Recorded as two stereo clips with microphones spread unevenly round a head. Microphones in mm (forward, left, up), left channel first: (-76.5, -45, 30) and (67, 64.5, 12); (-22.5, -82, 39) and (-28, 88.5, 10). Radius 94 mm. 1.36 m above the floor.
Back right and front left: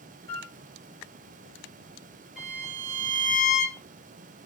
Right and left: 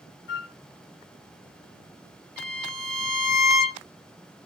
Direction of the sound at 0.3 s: 85° right.